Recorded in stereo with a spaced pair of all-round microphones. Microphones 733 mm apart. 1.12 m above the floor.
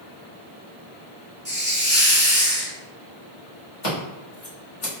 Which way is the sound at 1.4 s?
25° right (ahead or behind).